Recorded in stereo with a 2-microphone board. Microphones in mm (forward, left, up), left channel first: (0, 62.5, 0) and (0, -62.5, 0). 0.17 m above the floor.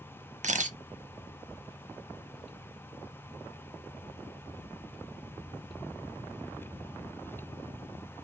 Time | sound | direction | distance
0.4 | a camera shutter | 70° right (ahead or behind) | 0.6 m